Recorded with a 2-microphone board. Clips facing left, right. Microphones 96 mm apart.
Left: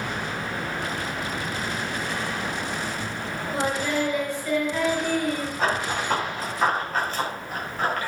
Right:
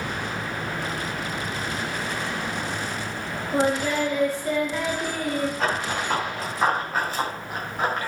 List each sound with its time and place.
3.5 s singing: 40° right (ahead or behind), 6 m
5.6 s running footsteps: 5° left (ahead or behind), 7 m; by 8.1 s 20° right (ahead or behind), 7.5 m